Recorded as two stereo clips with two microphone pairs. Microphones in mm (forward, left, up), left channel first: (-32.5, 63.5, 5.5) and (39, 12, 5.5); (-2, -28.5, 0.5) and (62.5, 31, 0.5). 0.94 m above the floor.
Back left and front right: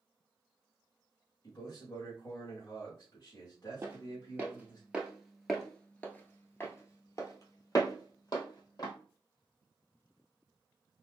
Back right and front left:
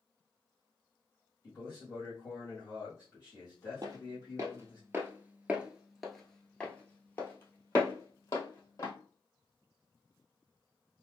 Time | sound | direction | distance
1.4 | a man speaking | straight behind | 1.7 m
3.8 | footsteps | 15° left | 1.3 m